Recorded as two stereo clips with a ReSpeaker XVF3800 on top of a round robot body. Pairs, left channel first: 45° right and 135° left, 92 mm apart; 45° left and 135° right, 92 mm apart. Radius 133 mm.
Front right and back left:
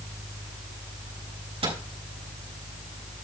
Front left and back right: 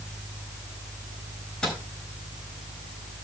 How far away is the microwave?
About 5 m.